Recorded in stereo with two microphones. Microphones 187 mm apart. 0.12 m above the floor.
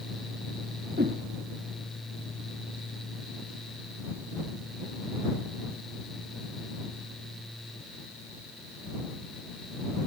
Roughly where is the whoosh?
Right.